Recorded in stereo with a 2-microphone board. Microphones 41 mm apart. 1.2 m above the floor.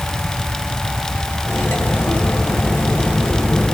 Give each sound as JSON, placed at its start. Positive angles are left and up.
{"t": 1.4, "sound": "cutlery clinking", "side_deg": 75, "distance_m": 3.0}